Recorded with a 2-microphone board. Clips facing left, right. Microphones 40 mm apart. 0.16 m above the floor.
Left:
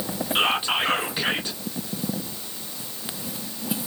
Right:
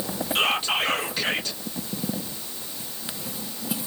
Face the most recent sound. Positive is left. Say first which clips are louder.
# left 1 dB
turn(degrees=15)  # may be behind; listen again after turning